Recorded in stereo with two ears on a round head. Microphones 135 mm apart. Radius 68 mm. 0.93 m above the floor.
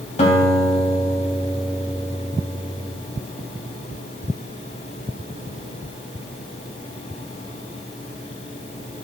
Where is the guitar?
45° left (ahead or behind), 3 m.